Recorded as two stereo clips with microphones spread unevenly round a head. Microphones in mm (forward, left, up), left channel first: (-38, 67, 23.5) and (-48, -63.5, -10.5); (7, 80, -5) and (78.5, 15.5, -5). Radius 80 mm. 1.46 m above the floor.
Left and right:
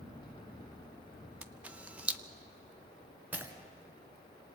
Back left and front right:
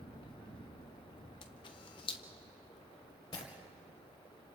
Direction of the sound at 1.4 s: Straight behind.